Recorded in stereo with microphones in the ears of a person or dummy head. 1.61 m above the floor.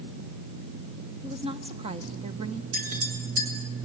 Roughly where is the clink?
Right.